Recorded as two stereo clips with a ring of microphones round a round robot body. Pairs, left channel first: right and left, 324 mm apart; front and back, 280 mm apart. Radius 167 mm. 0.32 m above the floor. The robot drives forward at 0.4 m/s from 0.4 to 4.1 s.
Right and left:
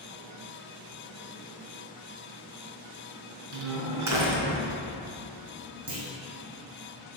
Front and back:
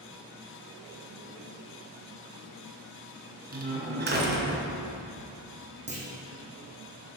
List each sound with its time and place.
3.5 s a door slam: 125° left, 2.5 m
5.9 s a clunk: 115° left, 4 m